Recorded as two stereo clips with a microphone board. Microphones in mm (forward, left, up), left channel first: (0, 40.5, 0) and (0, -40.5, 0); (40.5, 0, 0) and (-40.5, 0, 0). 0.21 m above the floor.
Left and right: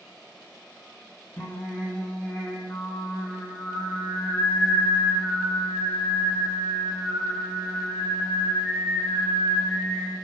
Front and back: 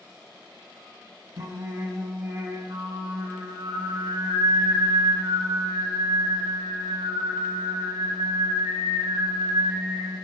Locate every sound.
1.4 s singing: 165° left, 4 m